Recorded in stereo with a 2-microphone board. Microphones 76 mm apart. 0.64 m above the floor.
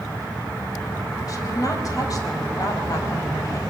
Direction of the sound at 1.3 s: 50° left (ahead or behind).